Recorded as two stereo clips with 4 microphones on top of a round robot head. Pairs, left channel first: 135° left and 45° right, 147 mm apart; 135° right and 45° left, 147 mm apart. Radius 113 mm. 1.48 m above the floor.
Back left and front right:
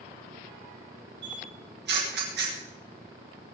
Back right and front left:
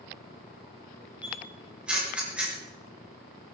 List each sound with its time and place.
1.2 s a camera shutter: 40° right, 5 m